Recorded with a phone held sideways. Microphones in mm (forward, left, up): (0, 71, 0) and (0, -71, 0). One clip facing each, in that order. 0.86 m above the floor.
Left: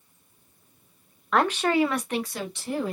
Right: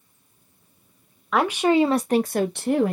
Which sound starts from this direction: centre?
A woman speaking, at 1.3 s.